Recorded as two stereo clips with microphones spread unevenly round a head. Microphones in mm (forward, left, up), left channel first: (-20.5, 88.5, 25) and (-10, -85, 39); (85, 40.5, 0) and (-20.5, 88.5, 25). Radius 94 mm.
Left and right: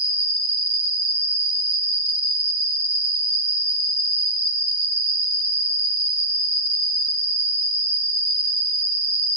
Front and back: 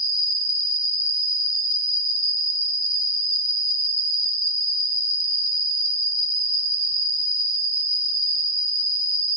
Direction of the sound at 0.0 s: 95° right.